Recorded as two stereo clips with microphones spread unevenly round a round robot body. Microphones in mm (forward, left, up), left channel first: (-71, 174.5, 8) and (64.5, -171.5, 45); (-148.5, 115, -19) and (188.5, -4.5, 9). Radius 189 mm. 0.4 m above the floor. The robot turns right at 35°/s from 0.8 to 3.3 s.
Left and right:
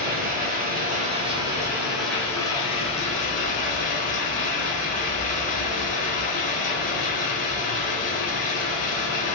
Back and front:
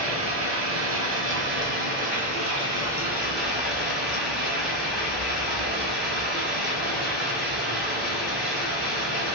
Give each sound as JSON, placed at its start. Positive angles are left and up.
{"t": 0.0, "sound": "running water", "azimuth_deg": -10, "distance_m": 1.1}